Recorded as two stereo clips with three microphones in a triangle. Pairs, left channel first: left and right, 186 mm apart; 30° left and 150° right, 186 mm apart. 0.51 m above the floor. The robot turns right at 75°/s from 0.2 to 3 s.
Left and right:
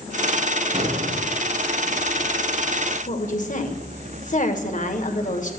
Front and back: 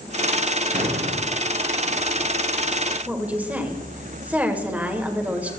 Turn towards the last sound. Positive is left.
turn(degrees=130)